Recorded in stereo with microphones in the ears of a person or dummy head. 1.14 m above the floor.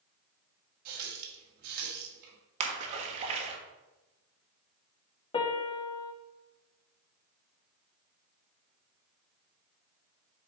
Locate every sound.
0.8 s a running tap: 55° right (ahead or behind), 1.7 m
2.6 s a splash: 40° right (ahead or behind), 1.4 m
5.3 s a piano: 25° left (ahead or behind), 0.7 m